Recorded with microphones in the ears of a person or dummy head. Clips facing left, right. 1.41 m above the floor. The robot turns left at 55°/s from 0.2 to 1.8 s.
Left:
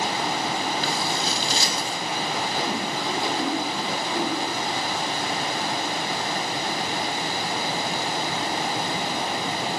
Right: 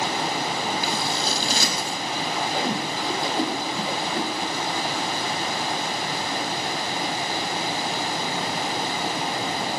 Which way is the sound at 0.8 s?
10° right (ahead or behind).